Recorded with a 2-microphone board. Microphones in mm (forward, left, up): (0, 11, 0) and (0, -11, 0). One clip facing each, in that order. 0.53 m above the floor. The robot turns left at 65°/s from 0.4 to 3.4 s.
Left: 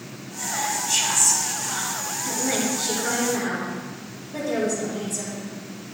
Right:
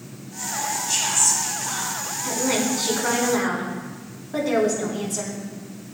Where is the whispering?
35° left, 4.5 m; by 2.1 s 80° right, 4.5 m.